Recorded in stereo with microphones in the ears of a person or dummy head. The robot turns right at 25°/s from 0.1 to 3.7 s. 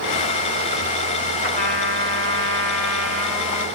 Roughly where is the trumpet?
Behind left.